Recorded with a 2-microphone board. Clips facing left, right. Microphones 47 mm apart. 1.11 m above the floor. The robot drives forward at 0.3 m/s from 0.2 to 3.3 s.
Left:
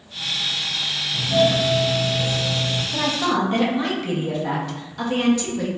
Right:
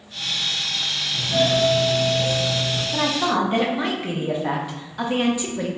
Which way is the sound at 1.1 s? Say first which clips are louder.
Left 2 dB; 25° left (ahead or behind).